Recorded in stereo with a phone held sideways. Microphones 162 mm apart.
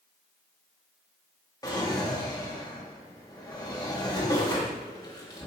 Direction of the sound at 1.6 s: 25° left (ahead or behind).